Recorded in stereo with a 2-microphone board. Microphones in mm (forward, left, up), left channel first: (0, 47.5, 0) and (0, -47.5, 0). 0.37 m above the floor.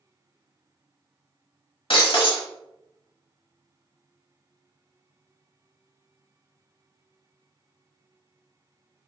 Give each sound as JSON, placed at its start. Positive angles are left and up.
{"t": 1.9, "sound": "breaking glass", "side_deg": 65, "distance_m": 0.9}